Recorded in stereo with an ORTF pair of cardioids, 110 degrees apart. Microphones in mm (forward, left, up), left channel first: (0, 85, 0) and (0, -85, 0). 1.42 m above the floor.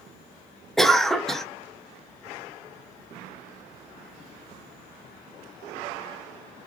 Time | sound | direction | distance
0.8 | a cough | straight ahead | 0.6 m